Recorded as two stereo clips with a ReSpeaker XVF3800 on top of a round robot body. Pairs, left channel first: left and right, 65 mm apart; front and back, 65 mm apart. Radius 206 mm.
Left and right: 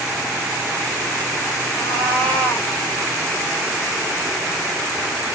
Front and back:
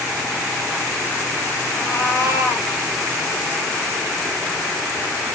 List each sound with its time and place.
1.8 s a cat meowing: 155° left, 2 m